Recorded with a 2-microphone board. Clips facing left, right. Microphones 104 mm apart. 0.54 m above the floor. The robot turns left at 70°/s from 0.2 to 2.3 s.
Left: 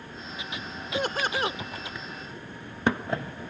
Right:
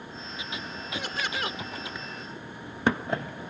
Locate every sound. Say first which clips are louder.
0.9 s laughter: left 6 dB; 75° left; by 1.6 s 25° left